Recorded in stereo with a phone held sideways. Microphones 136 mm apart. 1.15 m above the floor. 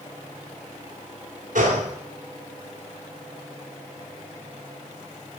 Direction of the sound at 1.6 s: 75° right (ahead or behind).